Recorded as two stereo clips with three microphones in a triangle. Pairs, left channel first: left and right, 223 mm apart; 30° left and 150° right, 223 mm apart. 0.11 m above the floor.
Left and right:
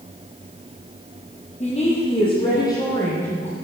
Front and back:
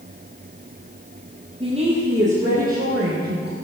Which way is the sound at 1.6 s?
145° left.